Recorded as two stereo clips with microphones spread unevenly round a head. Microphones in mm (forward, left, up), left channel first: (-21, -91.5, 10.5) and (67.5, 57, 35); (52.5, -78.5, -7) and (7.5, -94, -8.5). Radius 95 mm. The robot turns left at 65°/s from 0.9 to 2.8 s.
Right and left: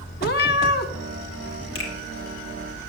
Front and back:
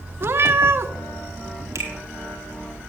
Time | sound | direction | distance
0.2 | a cat meowing | 145° right | 0.9 m
1.8 | a finger snap | 140° right | 3 m